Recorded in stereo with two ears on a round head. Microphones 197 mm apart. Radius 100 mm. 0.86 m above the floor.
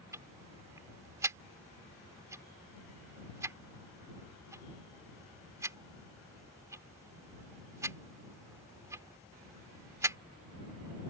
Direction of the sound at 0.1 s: 15° right (ahead or behind).